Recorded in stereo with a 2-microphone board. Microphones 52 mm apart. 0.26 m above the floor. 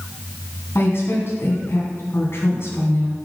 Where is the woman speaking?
50° left (ahead or behind), 2 m.